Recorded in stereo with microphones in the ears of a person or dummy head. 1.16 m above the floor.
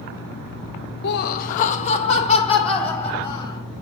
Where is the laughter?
60° left (ahead or behind), 0.7 m; by 3.6 s 25° left (ahead or behind), 3 m.